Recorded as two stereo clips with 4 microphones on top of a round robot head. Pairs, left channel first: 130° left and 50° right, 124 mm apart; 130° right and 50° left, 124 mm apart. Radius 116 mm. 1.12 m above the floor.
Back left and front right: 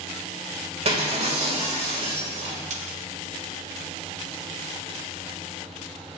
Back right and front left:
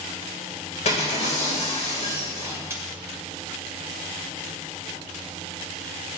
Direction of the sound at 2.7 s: 20° right.